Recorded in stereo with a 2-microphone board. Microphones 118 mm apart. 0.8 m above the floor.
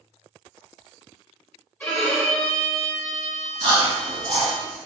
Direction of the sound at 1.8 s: 15° left (ahead or behind).